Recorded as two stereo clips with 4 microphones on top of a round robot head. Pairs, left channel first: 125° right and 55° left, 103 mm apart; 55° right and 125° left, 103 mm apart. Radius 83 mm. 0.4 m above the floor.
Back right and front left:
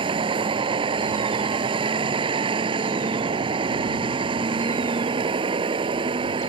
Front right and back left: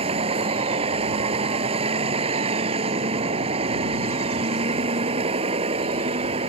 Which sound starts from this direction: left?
A vehicle, at 0.0 s.